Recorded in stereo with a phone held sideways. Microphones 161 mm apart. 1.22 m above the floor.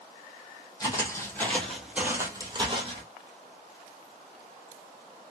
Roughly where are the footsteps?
Left.